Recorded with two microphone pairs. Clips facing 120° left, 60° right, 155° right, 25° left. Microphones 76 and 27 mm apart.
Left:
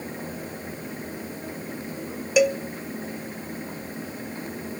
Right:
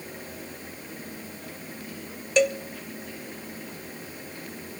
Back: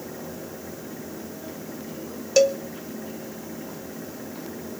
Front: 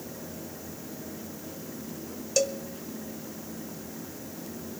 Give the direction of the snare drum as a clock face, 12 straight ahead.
I don't hear a snare drum.